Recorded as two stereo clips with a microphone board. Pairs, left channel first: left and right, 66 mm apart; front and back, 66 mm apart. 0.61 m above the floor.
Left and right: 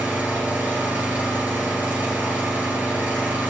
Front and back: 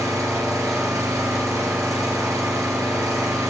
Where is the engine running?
150° right, 2.5 m.